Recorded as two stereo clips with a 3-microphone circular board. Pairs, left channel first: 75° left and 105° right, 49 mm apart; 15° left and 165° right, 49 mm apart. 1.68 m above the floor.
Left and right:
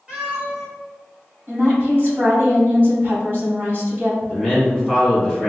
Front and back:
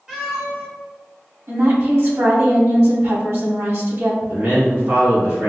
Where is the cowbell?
I don't hear a cowbell.